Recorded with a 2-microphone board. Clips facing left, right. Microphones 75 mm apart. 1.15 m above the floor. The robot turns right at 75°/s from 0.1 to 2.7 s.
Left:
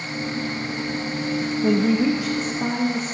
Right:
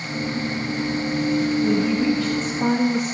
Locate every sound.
1.6 s a woman speaking: 115° left, 1.0 m; by 3.1 s 165° right, 1.0 m